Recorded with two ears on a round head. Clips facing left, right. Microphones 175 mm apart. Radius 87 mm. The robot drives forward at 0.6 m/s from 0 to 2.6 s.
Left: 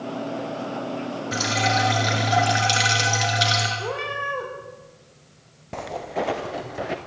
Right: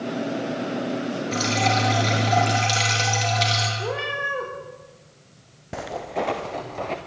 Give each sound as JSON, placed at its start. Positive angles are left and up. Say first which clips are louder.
{"t": 1.3, "sound": "dripping", "louder": "right 1 dB", "side_deg": 10, "distance_m": 6.5}
{"t": 3.8, "sound": "a cat meowing", "louder": "right 1 dB", "side_deg": -5, "distance_m": 7.0}
{"t": 5.7, "sound": "footsteps", "louder": "even", "side_deg": -10, "distance_m": 2.0}